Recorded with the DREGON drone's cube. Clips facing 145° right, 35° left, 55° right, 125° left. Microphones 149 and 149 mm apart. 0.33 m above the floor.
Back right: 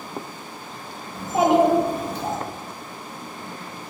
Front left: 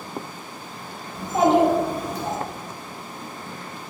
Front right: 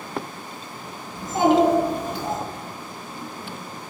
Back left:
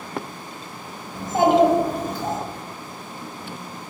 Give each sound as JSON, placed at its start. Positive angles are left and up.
{"t": 1.1, "sound": "a child speaking", "azimuth_deg": 125, "distance_m": 0.9}